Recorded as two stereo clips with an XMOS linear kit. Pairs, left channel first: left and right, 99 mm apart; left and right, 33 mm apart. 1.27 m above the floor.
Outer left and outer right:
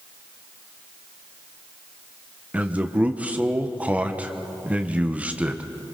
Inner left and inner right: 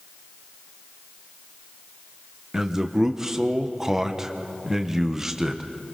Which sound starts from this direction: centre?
A man speaking, at 2.5 s.